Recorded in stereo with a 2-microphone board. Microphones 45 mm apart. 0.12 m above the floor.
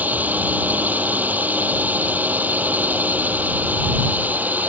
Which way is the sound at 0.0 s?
40° right (ahead or behind).